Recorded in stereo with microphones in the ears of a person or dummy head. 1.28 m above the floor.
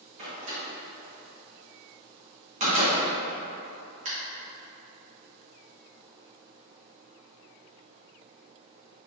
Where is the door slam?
40° right (ahead or behind), 1.5 m.